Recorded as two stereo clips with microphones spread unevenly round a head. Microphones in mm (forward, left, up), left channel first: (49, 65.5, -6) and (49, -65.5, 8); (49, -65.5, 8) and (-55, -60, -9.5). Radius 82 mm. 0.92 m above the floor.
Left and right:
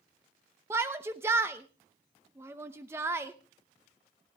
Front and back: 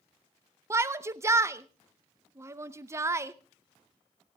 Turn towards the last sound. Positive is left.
turn(degrees=-165)